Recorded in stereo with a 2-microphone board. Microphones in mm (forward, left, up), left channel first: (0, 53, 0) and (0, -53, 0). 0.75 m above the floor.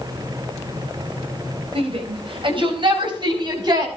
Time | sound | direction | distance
1.8 | a shout | 60° right (ahead or behind) | 4.5 m